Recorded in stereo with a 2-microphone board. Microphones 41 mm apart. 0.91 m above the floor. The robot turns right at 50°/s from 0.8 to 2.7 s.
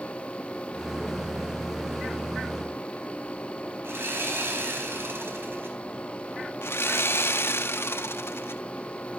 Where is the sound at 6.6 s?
80° left, 0.7 m.